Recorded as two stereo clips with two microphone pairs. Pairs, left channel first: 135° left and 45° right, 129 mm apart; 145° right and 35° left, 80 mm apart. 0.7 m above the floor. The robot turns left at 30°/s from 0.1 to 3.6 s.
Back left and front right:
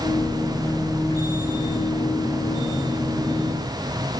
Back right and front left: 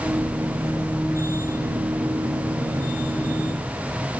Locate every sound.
Only background noise.